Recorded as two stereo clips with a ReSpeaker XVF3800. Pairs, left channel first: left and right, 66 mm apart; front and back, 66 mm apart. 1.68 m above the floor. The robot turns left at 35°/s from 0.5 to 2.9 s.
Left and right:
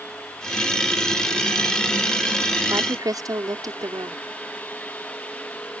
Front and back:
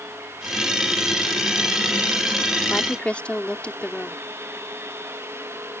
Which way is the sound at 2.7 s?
65° right.